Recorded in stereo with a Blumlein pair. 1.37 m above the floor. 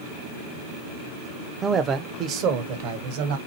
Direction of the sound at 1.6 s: 15° right.